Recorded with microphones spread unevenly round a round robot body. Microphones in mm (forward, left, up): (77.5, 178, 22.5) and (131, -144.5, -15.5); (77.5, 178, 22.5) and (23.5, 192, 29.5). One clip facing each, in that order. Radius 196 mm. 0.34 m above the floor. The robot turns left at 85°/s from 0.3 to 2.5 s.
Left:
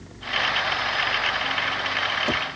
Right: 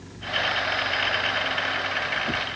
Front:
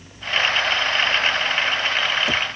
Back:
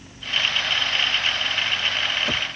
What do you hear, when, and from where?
Only background noise.